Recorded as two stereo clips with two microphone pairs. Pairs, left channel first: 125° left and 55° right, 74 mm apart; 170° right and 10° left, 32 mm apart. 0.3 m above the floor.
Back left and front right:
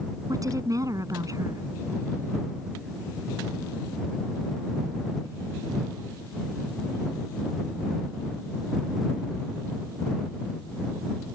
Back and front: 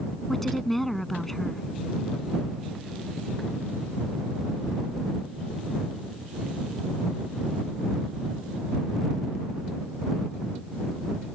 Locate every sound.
0.3 s a woman speaking: 90° right